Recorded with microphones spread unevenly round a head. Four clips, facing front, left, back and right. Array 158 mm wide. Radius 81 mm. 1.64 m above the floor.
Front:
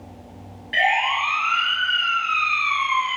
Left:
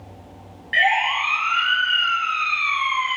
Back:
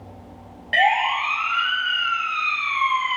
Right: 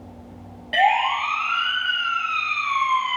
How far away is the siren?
About 7.5 m.